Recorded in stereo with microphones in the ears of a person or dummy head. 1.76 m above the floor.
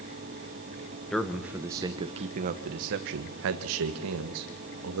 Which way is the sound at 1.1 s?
Centre (ahead or behind).